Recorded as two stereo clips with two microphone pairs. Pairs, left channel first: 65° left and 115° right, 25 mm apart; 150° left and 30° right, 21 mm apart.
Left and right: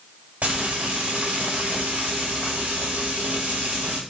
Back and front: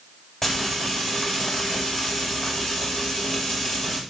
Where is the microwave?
I don't hear a microwave.